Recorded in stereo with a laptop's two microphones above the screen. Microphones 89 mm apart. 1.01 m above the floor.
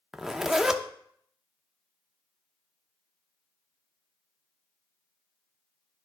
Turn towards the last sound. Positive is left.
turn(degrees=-5)  # may be behind; listen again after turning